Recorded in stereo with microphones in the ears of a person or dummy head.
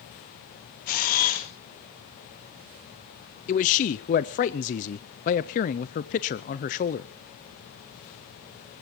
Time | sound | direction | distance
0.9 | a camera shutter | 45° left (ahead or behind) | 1.7 m
3.5 | a man speaking | 35° left (ahead or behind) | 0.6 m